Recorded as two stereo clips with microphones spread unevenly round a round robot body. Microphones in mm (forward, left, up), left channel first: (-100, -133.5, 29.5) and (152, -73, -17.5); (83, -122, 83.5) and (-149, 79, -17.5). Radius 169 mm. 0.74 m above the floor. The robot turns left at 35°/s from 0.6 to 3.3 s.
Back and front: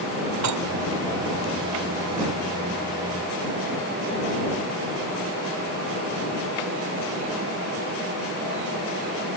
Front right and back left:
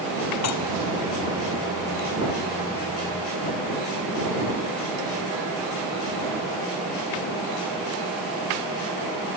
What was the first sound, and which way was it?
Dishes clattering, 5° left.